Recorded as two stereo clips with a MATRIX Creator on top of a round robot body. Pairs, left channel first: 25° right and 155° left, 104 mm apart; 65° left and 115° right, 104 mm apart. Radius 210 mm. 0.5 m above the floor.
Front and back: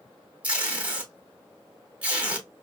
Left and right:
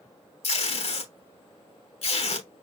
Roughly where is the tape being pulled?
Left.